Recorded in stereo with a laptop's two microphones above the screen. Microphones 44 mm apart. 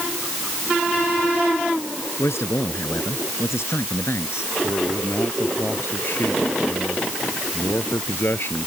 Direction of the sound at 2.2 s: 85° left.